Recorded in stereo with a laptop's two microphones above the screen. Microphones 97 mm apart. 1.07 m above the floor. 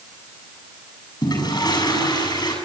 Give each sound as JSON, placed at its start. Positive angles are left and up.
{"t": 1.2, "sound": "a toilet flushing", "side_deg": 50, "distance_m": 7.0}